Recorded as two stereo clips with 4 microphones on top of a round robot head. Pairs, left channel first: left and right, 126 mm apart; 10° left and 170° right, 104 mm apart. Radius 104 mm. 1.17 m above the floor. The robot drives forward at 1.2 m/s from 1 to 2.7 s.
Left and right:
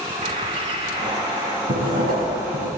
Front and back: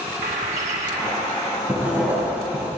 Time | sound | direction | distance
0.2 | a bird | 150° right | 1.3 m
1.7 | writing | 95° right | 6.5 m